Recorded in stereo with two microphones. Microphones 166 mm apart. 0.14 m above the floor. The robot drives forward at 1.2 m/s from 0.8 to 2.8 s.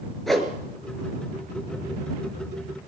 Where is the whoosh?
Centre (ahead or behind), 2.5 m.